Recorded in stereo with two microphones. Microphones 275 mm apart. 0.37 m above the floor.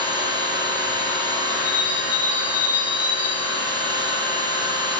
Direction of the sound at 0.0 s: 15° right (ahead or behind).